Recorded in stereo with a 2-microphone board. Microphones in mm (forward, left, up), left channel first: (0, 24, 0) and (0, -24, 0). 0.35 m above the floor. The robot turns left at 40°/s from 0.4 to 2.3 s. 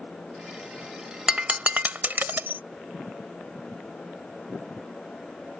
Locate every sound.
1.3 s breaking glass: 20° right (ahead or behind); by 2.6 s 45° right (ahead or behind)